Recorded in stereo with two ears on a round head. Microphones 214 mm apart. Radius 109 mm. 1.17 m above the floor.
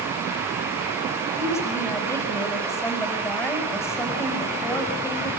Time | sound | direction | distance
1.4 | a woman speaking | 10° left (ahead or behind) | 6.5 m